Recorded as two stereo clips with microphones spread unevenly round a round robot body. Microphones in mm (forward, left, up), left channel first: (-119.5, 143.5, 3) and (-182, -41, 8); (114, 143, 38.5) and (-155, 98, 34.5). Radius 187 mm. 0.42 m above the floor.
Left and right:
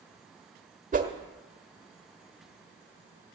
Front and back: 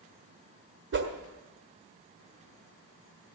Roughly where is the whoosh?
Behind right.